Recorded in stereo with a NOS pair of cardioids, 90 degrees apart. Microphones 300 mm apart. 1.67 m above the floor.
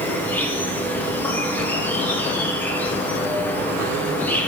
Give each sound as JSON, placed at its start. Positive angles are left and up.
{"t": 0.0, "sound": "an insect", "azimuth_deg": 5, "distance_m": 0.9}